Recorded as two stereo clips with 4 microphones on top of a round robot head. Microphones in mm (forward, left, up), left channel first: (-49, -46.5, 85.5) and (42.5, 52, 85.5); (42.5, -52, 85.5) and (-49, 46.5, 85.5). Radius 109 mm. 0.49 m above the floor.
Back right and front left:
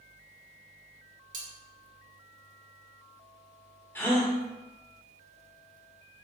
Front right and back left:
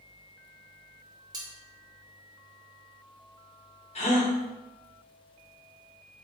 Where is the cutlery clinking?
70° left, 0.9 m.